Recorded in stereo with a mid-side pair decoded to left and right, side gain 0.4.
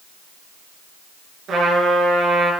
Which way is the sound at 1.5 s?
70° right.